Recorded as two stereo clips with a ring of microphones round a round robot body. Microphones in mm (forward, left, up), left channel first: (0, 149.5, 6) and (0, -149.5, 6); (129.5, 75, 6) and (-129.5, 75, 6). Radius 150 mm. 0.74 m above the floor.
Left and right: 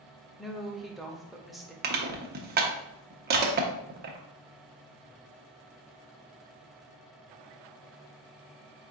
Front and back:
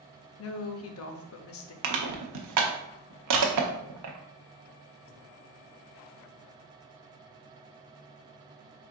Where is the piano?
I don't hear a piano.